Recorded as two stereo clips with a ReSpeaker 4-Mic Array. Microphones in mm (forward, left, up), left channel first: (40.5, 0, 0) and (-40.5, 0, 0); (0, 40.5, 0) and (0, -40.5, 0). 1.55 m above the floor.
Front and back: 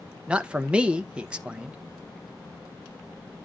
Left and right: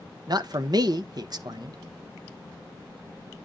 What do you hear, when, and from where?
0.3 s a man speaking: 105° right, 0.8 m